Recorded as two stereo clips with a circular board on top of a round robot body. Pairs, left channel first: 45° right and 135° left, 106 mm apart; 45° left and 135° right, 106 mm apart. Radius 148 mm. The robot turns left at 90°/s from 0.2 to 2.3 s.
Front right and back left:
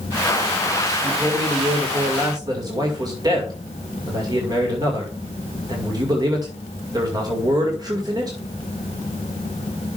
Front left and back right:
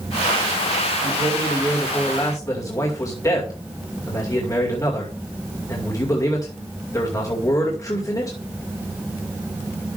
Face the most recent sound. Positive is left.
turn(degrees=95)